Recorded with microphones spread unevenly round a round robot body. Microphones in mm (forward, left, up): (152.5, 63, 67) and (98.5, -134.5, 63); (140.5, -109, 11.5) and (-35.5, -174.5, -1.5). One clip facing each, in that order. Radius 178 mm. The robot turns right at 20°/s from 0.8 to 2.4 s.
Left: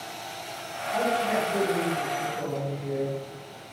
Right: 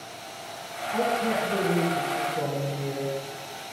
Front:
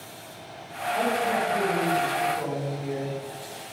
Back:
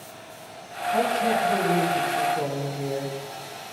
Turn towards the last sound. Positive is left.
turn(degrees=-135)